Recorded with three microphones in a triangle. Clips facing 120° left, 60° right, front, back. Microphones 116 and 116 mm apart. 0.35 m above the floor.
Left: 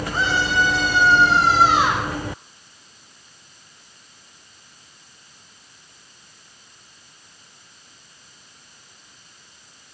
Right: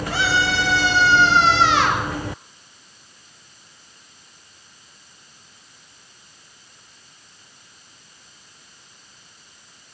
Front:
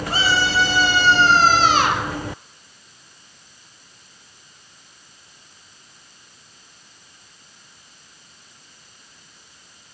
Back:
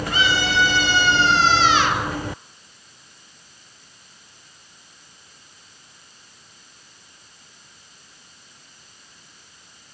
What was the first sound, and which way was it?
A scream, 60° right.